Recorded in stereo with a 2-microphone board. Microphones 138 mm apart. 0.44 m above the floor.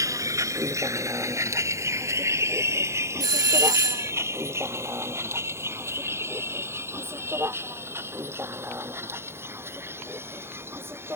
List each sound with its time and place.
0.0 s a vehicle: 25° right (ahead or behind); by 11.2 s 15° right (ahead or behind)
3.2 s a doorbell: 30° right (ahead or behind)